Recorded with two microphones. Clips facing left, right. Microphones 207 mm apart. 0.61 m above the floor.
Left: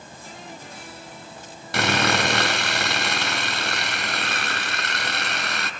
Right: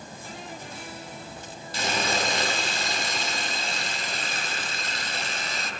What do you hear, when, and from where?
1.7 s sawing: 85° left, 3 m